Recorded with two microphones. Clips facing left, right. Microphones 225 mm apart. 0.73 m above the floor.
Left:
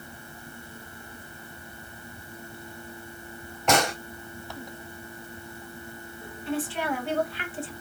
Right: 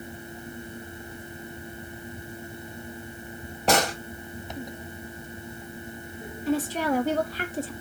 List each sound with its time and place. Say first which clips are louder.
3.7 s a gunshot: even; 30° right (ahead or behind), 2.5 m
6.5 s a woman speaking: right 4 dB; 40° right (ahead or behind), 0.9 m